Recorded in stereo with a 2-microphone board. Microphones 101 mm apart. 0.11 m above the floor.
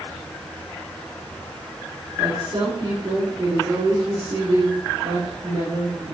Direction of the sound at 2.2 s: 55° right (ahead or behind).